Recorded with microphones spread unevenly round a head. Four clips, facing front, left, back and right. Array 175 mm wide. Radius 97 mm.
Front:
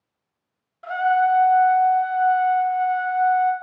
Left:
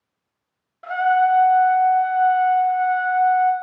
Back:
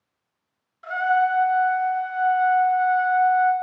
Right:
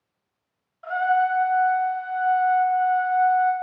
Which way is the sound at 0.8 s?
60° left.